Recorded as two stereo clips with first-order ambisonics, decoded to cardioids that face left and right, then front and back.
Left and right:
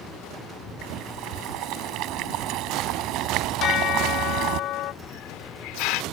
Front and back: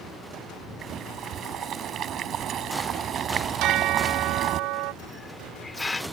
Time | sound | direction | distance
0.8 | boiling | 120° right | ?
3.6 | a bell | 140° left | ?
5.0 | a hiss | 75° left | ?